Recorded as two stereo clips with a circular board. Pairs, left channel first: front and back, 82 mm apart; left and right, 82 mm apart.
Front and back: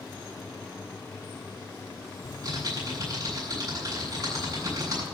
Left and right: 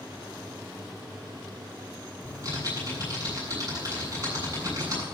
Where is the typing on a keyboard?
140° right, 8.5 m.